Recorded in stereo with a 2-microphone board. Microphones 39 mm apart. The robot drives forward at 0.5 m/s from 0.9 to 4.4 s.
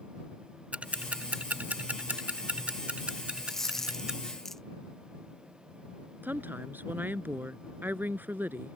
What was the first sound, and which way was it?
Ticking, 35° right (ahead or behind).